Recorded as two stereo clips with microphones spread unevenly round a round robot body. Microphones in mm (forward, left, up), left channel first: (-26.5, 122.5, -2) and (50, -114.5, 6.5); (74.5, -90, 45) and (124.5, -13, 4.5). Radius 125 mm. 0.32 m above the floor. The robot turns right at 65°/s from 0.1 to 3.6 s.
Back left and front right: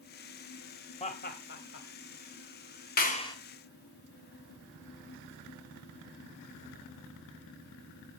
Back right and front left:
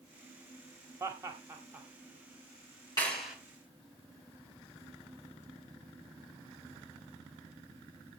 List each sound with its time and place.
1.0 s laughter: 50° left, 1.4 m; by 1.9 s 105° left, 1.4 m
3.0 s a clap: 160° left, 2.5 m; by 3.4 s 175° right, 2.5 m